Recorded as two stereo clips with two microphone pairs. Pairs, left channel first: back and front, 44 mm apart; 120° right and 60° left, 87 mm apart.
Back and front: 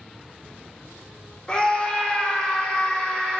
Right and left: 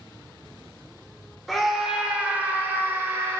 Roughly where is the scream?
Behind left.